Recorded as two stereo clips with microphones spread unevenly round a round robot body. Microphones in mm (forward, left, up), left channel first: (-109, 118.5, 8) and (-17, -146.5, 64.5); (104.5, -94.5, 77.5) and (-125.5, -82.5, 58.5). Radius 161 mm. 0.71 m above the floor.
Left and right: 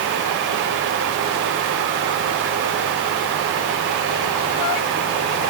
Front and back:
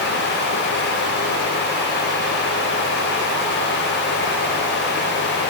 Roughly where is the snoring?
No snoring in this recording.